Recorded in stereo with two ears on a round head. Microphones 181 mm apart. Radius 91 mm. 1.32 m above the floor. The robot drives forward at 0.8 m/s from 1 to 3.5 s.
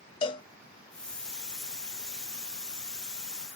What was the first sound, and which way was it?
A cowbell, 25° left (ahead or behind).